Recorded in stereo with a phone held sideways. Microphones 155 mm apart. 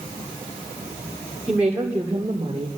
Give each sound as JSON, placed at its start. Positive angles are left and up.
{"t": 1.5, "sound": "a woman speaking", "side_deg": -5, "distance_m": 2.5}